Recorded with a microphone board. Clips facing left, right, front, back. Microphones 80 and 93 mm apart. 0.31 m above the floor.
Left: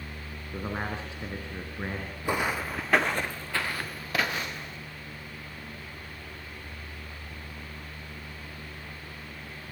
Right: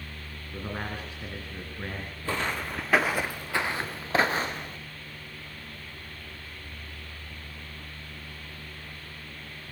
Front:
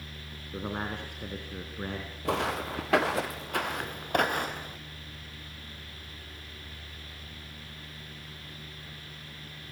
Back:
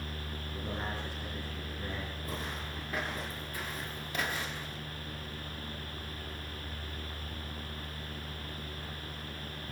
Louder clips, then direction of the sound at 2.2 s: Left 2 dB, front 16 dB; 15° left.